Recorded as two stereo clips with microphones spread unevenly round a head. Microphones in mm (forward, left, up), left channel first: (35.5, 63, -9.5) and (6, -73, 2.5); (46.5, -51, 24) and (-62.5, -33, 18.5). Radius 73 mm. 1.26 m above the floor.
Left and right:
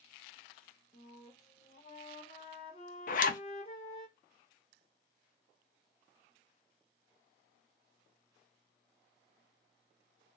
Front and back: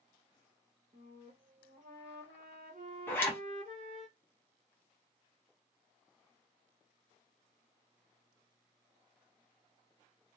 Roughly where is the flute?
Behind left.